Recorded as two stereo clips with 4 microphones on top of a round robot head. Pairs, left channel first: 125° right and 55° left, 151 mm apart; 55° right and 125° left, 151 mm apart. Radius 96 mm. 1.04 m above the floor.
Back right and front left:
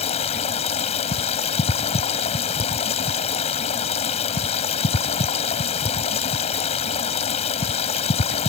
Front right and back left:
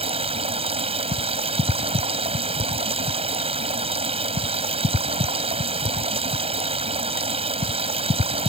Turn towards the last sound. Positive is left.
turn(degrees=180)